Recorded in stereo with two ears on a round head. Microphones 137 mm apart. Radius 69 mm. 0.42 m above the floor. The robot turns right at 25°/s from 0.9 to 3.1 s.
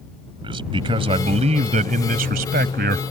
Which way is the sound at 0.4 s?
140° right.